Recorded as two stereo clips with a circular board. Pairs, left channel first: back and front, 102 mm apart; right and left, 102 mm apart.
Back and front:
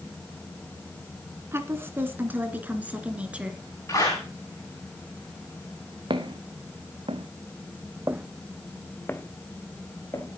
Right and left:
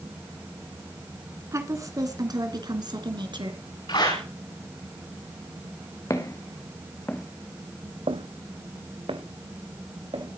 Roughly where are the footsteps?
Ahead right.